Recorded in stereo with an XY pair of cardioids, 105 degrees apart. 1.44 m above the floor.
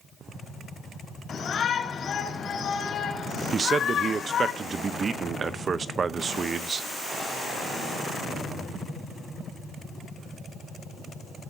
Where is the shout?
60° left, 4 m.